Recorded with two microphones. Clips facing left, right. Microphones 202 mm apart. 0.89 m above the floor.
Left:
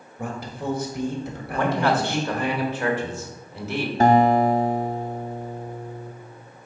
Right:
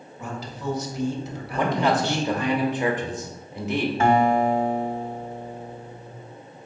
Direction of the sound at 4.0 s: 40° left (ahead or behind).